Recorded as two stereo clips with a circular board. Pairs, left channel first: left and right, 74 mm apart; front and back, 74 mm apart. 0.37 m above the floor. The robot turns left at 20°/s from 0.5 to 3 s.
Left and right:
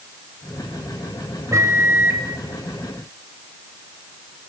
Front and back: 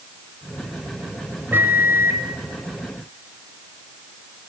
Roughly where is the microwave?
Behind right.